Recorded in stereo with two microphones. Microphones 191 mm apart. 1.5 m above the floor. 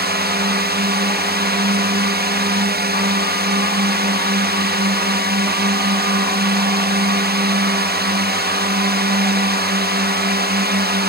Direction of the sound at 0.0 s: 65° right (ahead or behind).